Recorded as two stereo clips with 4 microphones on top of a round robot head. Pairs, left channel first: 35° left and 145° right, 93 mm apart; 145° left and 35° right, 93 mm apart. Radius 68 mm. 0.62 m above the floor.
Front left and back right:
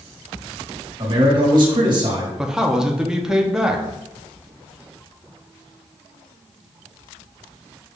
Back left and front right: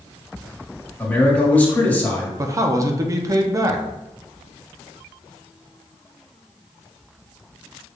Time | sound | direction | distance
1.0 | a man speaking | 145° right | 1.6 m
2.4 | a man speaking | 65° right | 0.7 m